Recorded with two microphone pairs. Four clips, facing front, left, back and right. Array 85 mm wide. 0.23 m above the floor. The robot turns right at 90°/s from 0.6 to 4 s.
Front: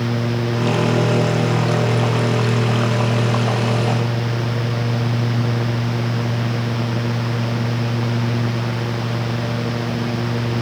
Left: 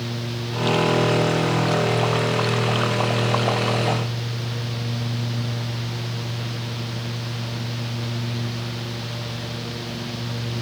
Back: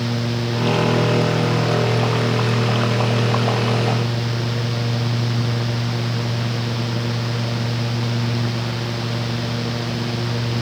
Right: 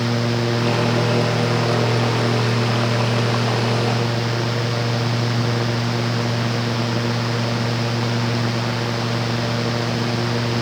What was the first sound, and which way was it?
Only background noise.